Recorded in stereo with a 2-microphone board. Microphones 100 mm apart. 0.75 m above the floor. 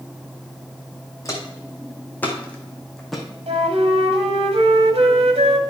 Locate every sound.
1.2 s footsteps: 30° left (ahead or behind), 2.5 m; by 3.2 s centre (ahead or behind), 1.9 m
3.5 s a flute: 80° right, 1.5 m